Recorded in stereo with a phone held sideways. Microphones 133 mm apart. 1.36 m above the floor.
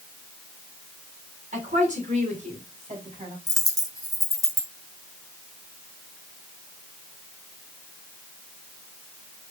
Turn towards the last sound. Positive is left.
turn(degrees=25)  # may be behind; listen again after turning